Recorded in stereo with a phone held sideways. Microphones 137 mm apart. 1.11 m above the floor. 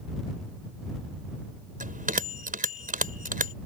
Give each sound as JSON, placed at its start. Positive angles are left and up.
{"t": 1.8, "sound": "a bell", "side_deg": -80}